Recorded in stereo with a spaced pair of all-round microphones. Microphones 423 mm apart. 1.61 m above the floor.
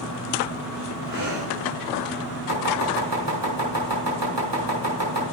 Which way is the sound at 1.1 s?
45° right (ahead or behind).